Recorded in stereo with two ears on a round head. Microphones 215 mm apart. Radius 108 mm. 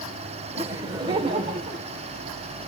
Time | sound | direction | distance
0.6 | laughter | 10° right (ahead or behind) | 1.8 m